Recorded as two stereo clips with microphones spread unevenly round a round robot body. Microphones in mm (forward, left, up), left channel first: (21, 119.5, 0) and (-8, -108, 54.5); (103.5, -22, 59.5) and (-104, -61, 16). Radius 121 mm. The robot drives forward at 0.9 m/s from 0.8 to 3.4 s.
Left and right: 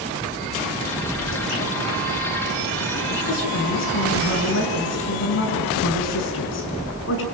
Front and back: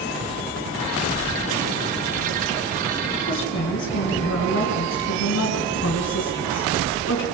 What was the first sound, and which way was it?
A woman speaking, 55° left.